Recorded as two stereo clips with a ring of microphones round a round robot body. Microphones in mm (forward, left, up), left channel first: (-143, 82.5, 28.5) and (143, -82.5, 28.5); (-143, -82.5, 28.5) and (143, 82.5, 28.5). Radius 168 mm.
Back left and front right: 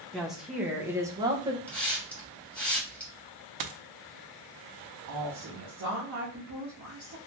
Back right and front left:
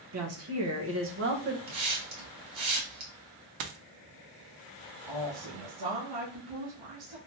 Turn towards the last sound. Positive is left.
turn(degrees=20)